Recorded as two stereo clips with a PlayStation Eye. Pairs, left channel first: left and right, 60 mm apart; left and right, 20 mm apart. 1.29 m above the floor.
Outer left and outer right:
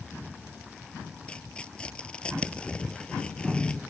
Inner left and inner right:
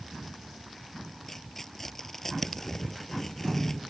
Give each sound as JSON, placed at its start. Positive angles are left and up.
{"t": 1.3, "sound": "tearing paper", "side_deg": 15}